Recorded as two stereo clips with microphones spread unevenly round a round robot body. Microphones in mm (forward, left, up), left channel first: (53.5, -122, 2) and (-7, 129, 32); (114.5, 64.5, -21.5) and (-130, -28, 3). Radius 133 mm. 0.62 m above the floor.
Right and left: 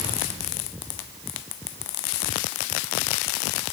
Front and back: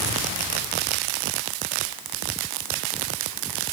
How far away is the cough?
No cough in this recording.